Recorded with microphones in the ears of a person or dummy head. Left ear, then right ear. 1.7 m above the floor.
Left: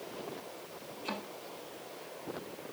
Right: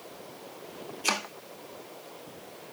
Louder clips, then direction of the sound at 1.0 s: Right 11 dB; 55° right (ahead or behind).